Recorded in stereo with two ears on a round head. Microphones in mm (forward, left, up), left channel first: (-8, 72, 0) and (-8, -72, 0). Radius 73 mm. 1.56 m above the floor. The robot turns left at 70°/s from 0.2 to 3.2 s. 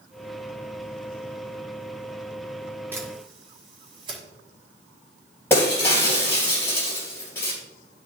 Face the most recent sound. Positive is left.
turn(degrees=15)  # may be behind; listen again after turning